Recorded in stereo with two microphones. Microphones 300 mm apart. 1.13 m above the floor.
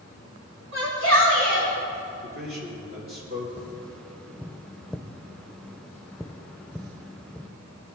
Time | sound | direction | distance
0.7 | a shout | 60° right (ahead or behind) | 3.5 m
2.2 | a man speaking | 45° right (ahead or behind) | 3 m
3.6 | tapping | 5° left (ahead or behind) | 0.5 m